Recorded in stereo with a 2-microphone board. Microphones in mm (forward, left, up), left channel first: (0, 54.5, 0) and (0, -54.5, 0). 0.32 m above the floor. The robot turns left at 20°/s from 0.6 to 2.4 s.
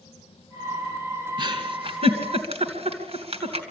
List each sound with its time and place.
1.4 s a giggle: 50° right (ahead or behind), 2.5 m; by 3.6 s 65° right (ahead or behind), 2.5 m